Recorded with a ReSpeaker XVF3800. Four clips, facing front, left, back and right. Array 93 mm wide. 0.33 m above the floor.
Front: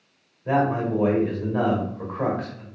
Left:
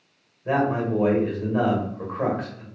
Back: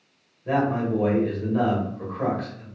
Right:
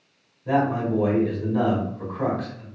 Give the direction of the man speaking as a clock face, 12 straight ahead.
10 o'clock.